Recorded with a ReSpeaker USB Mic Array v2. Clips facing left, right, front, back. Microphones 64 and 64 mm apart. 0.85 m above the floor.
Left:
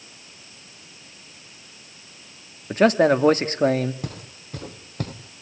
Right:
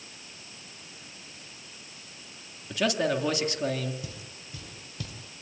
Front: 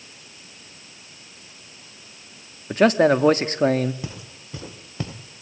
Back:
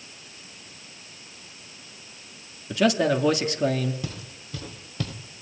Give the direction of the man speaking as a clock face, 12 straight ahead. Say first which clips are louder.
Left 10 dB, front 5 dB; 10 o'clock.